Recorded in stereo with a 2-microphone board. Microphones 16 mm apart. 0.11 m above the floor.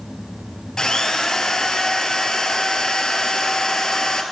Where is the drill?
50° left (ahead or behind), 1.1 m.